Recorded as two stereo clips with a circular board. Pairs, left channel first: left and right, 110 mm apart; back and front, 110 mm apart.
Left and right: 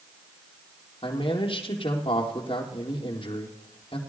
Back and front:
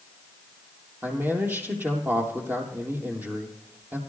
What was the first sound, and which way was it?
A man speaking, 70° left.